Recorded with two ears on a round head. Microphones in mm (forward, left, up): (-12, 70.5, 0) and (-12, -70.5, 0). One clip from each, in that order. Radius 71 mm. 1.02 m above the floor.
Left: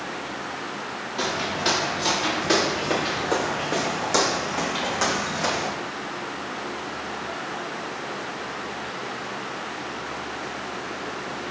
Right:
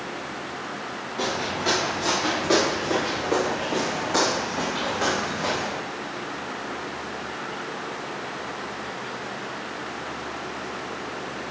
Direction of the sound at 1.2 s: 75° left (ahead or behind).